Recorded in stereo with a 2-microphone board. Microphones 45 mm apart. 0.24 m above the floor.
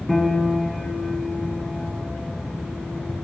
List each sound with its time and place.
0.1 s a piano: 5° left (ahead or behind), 0.7 m